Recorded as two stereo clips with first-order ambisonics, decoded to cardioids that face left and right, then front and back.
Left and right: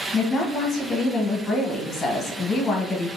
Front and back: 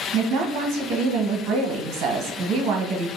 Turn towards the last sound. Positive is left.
turn(degrees=155)